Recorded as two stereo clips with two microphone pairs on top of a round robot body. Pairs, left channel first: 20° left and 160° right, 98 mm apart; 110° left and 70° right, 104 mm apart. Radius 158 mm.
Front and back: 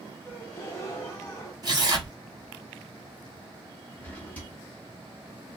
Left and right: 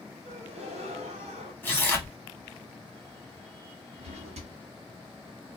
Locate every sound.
0.2 s a gasp: 50° right, 1.1 m
1.6 s tearing paper: straight behind, 1.3 m
4.0 s a drawer: 55° right, 0.9 m